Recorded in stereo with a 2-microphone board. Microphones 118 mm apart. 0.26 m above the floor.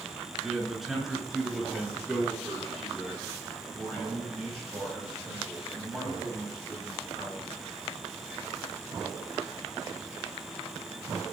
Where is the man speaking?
5° right (ahead or behind), 2.5 m; by 7.5 s centre (ahead or behind), 10 m.